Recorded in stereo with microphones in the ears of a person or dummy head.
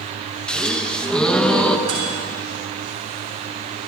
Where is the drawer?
No drawer in this recording.